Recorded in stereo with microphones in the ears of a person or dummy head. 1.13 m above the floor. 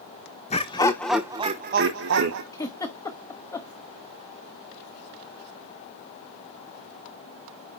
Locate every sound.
0.5 s laughter: 30° left (ahead or behind), 1.1 m; by 2.4 s 65° right (ahead or behind), 1.1 m
2.5 s a giggle: 20° left (ahead or behind), 1.0 m